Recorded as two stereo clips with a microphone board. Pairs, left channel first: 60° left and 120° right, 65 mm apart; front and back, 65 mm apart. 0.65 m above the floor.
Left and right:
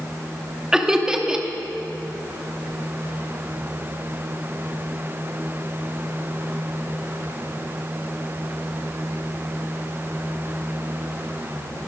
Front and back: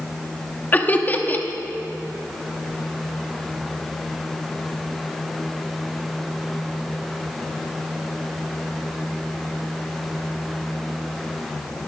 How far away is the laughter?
About 0.9 m.